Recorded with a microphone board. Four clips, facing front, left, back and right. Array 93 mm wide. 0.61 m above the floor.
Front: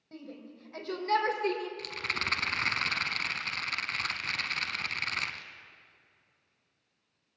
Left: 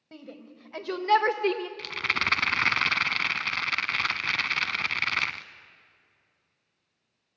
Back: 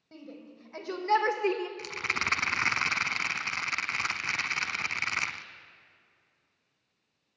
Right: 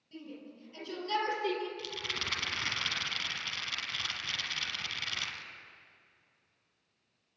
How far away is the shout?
About 3.5 m.